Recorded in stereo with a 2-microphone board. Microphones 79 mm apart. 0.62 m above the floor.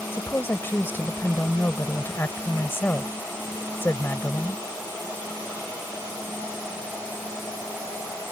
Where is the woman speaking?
30° left (ahead or behind).